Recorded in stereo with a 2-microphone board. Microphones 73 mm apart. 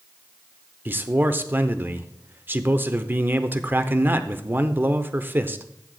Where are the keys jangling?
No keys jangling in this recording.